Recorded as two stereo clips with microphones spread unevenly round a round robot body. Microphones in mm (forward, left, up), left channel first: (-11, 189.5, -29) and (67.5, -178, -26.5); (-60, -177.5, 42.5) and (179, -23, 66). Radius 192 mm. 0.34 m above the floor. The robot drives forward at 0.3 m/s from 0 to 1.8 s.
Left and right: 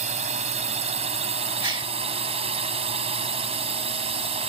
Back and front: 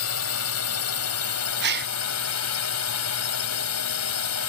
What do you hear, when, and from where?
0.0 s a drone: 145° right; by 4.5 s 150° right
1.6 s a gasp: 5° right